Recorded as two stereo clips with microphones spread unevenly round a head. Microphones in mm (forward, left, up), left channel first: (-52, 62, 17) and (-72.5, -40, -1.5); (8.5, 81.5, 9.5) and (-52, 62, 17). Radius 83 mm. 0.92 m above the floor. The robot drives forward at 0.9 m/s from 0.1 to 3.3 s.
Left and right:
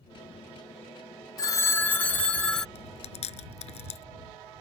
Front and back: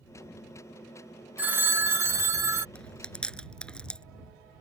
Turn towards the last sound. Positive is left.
turn(degrees=95)